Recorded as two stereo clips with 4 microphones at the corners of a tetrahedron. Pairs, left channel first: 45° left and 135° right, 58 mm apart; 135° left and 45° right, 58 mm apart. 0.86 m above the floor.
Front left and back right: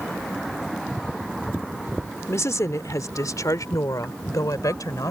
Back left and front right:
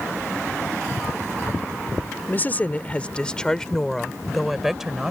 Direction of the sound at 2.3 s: 80° left.